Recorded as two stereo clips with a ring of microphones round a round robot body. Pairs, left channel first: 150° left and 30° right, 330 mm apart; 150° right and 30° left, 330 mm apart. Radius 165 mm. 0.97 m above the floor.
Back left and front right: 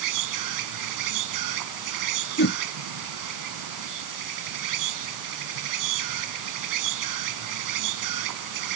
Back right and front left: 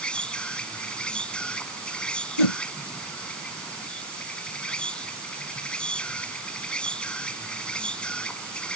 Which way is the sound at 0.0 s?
65° right.